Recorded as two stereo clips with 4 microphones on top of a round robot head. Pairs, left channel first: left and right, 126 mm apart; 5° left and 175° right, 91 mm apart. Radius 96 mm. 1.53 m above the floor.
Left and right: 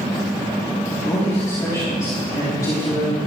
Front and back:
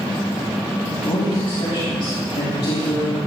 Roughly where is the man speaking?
Ahead left.